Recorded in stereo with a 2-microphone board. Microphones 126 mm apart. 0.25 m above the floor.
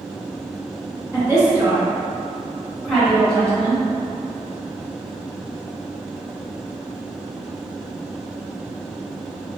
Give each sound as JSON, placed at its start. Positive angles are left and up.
{"t": 1.1, "sound": "a woman speaking", "side_deg": -25, "distance_m": 1.7}